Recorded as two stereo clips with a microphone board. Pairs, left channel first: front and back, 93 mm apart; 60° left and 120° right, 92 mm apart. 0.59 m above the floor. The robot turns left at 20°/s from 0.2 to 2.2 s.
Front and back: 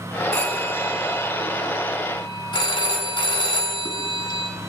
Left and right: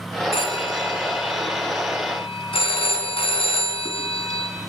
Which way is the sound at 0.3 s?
75° left.